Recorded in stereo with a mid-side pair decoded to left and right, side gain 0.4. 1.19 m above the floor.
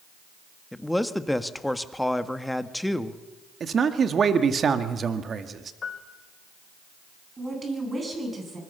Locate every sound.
0.7 s a man speaking: 10° left, 1.6 m
3.6 s a man speaking: 50° right, 1.9 m
5.8 s a piano: 50° left, 2.5 m
7.4 s a woman speaking: 30° right, 9.5 m